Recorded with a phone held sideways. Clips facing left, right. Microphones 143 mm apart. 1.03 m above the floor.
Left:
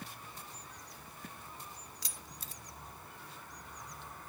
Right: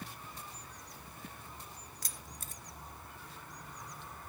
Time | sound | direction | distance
2.0 | keys jangling | 50° right (ahead or behind) | 0.5 m